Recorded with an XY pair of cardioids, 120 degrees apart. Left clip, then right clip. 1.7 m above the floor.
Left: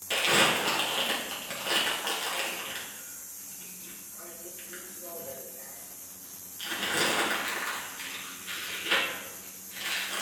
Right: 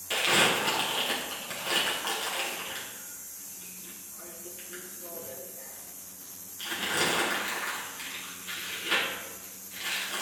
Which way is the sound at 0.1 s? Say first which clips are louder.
Even; 5° left.